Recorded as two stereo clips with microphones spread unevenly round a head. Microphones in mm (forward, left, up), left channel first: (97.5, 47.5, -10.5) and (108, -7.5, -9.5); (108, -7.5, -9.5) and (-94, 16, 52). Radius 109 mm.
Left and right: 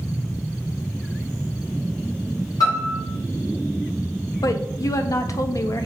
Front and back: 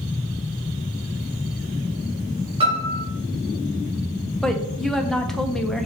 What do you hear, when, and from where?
2.6 s a piano: 110° left, 2.5 m
4.4 s a woman speaking: 80° left, 0.8 m